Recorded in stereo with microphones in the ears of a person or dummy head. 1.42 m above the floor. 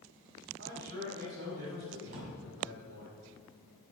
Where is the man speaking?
75° right (ahead or behind), 5 m.